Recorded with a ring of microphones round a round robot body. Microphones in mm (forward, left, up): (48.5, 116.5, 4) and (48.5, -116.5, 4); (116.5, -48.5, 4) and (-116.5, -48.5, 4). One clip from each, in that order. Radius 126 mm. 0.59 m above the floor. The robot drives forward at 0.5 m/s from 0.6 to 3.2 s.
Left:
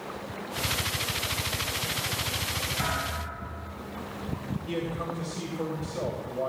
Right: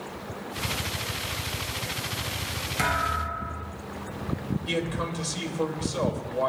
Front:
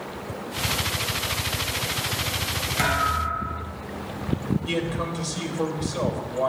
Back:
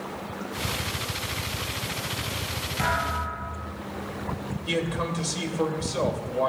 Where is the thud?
40° right, 5 m.